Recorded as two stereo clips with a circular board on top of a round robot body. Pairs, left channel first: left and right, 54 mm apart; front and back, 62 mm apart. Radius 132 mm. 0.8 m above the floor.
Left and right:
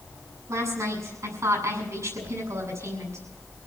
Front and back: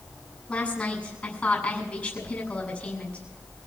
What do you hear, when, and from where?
0.5 s a woman speaking: 70° right, 7.5 m